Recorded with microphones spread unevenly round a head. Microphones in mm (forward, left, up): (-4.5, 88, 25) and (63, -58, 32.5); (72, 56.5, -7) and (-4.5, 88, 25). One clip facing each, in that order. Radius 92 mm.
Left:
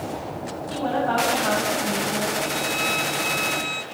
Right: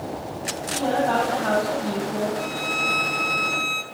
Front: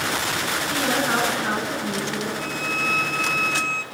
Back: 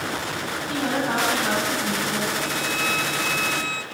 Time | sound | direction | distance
0.7 | a woman speaking | 155° right | 7.5 m
2.4 | a violin | 130° right | 0.8 m